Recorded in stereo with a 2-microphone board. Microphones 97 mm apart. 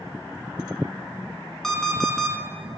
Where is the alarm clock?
5° left (ahead or behind), 1.2 m.